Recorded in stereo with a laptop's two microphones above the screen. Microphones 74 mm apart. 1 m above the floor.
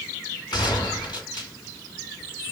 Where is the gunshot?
75° left (ahead or behind), 2.5 m.